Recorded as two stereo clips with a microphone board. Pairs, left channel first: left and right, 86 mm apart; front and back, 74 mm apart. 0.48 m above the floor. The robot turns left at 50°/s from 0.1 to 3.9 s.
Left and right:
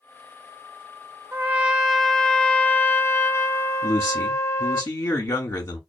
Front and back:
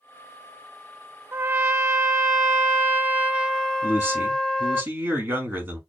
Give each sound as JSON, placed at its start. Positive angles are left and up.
{"t": 1.3, "sound": "a trumpet", "azimuth_deg": -145, "distance_m": 0.7}
{"t": 3.8, "sound": "a man speaking", "azimuth_deg": 140, "distance_m": 1.4}